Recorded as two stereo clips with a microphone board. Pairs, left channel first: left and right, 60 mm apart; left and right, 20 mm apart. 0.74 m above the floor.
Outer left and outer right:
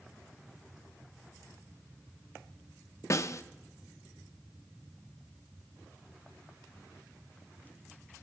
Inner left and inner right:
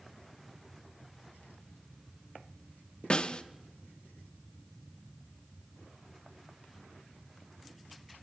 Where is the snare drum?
55° left (ahead or behind), 0.7 m.